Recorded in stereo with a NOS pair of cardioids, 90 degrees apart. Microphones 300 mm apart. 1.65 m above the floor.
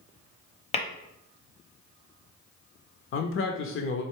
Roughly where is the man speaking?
Ahead left.